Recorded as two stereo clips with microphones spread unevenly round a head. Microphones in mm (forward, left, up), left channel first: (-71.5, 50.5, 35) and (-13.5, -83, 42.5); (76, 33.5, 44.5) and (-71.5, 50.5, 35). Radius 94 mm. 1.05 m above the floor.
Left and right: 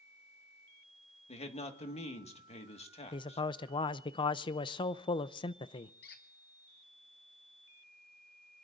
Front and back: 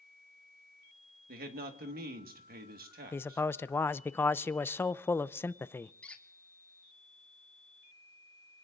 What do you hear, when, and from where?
1.3 s a man speaking: 160° left, 1.8 m
3.1 s a man speaking: 70° left, 0.5 m
6.0 s a squeak: 75° left, 1.4 m